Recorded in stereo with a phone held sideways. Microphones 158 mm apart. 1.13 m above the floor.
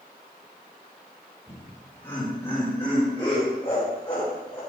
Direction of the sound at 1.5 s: 15° left (ahead or behind).